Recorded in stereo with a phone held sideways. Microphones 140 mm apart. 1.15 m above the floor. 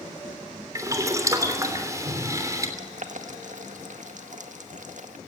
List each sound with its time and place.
0.8 s boiling: 25° right (ahead or behind), 3 m
2.8 s boiling: 65° right (ahead or behind), 1.7 m